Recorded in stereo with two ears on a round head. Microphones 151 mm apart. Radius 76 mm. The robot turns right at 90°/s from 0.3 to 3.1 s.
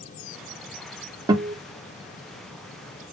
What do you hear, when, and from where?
1.3 s a guitar: 25° right (ahead or behind), 0.9 m; by 1.6 s 15° right (ahead or behind), 0.9 m